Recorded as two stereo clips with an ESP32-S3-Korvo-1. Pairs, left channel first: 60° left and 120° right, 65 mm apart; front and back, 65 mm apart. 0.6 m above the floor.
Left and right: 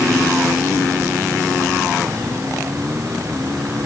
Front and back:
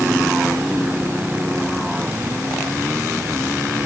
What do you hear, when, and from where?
Only background noise.